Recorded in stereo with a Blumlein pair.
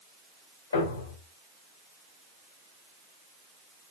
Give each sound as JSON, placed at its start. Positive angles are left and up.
{"t": 0.7, "sound": "a thud", "azimuth_deg": 65, "distance_m": 3.0}